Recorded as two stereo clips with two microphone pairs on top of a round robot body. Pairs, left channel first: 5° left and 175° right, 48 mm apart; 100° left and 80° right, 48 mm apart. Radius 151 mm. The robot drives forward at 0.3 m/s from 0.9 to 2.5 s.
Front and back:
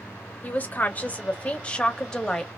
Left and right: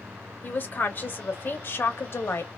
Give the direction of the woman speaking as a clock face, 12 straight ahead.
10 o'clock.